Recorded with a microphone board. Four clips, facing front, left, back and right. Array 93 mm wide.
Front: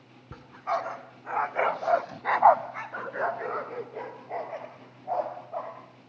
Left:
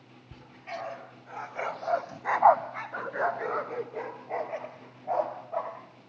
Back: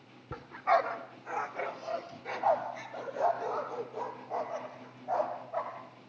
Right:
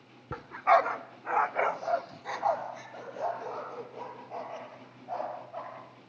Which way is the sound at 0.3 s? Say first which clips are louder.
Right 17 dB, back 3 dB; 90° right.